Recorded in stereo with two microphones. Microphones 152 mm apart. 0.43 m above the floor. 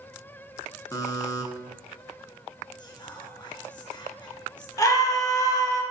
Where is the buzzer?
25° left (ahead or behind), 0.7 m.